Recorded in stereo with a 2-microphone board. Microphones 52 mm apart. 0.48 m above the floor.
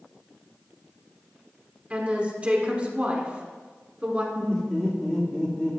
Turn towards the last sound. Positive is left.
turn(degrees=20)  # may be behind; listen again after turning